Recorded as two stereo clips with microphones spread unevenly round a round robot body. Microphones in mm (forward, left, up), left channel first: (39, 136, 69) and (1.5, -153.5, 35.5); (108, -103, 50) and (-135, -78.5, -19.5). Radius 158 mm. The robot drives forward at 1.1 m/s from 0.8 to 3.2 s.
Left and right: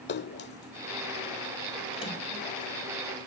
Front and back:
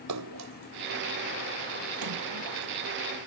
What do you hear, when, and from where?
0.1 s a splash: 140° left; by 2.7 s 160° left